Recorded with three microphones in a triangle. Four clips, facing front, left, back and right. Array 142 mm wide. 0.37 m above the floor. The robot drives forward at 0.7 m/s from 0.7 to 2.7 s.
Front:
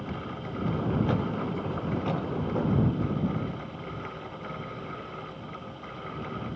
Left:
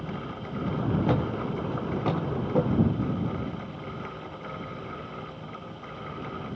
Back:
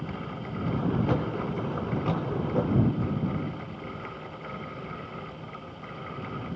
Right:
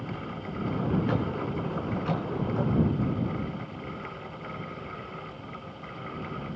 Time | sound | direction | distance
1.1 | a thud | 85° left | 9 m